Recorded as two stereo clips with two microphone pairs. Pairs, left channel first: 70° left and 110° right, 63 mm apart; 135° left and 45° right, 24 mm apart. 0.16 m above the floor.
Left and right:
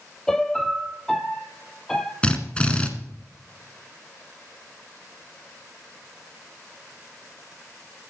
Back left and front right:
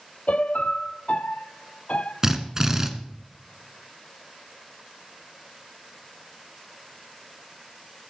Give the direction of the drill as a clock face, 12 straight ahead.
12 o'clock.